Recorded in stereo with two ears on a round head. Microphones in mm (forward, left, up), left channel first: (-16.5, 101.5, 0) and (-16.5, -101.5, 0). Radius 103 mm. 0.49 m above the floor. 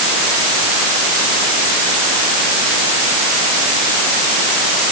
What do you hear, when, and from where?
Only background noise.